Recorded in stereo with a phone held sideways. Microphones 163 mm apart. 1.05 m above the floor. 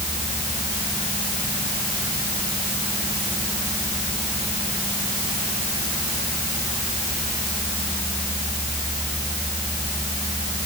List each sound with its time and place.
Only background noise.